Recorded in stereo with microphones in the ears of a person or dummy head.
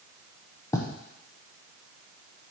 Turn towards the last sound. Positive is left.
turn(degrees=15)  # may be behind; listen again after turning